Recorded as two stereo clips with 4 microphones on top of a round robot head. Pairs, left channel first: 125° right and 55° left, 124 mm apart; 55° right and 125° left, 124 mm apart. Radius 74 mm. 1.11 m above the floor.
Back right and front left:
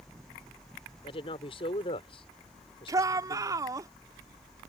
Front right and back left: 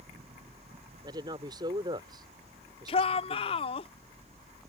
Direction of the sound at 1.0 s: 175° right.